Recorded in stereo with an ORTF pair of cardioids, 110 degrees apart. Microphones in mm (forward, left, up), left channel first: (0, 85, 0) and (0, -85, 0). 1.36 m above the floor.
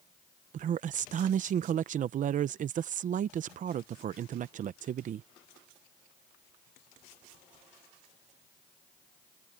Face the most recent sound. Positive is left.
turn(degrees=-50)